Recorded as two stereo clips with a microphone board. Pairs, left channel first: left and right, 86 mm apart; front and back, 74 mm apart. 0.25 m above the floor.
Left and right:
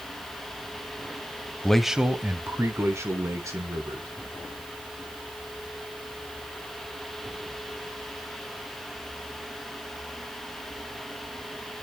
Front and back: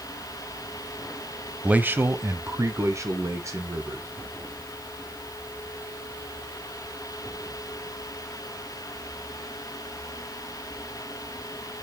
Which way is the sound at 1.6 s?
150° left.